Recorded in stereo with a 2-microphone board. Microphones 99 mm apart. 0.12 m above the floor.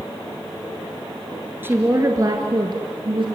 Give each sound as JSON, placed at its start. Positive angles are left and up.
{"t": 1.6, "sound": "a woman speaking", "side_deg": -20, "distance_m": 2.0}